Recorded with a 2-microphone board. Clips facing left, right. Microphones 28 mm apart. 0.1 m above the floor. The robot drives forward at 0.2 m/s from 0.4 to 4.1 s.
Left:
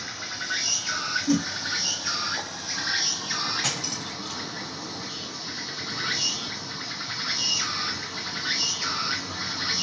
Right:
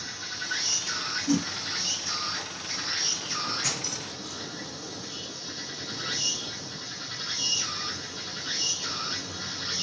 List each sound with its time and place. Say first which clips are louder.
0.0 s an insect: left 2 dB; 45° left (ahead or behind), 1.3 m; by 9.8 s 75° left (ahead or behind), 0.9 m
1.3 s a whoosh: left 2 dB; 20° left (ahead or behind), 1.0 m
3.6 s cutlery clinking: left 3 dB; 60° left (ahead or behind), 1.4 m